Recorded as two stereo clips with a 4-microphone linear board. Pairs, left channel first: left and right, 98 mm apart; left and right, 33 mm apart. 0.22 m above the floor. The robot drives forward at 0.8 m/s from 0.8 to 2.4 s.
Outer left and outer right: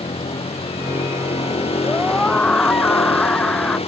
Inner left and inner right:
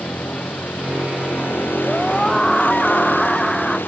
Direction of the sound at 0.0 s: 85° left.